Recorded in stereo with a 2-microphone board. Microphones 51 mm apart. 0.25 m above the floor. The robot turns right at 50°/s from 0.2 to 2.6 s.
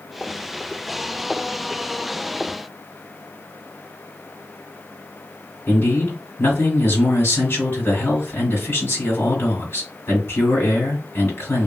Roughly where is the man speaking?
Left.